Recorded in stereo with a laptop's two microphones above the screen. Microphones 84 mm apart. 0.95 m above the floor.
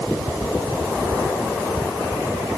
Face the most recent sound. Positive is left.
No sound to turn to.